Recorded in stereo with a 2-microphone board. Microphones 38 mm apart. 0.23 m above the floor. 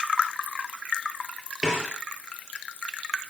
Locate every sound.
1.6 s a snare drum: 15° right (ahead or behind), 6.5 m